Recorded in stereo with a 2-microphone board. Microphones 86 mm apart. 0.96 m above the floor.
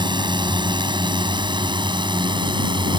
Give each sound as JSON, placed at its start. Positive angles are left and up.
{"t": 0.0, "sound": "a drone", "side_deg": -65}